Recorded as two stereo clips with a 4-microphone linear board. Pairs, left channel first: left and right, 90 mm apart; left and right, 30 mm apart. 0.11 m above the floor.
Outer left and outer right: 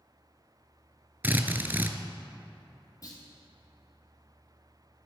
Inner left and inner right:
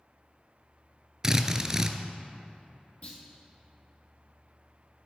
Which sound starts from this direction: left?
A clunk, at 3.0 s.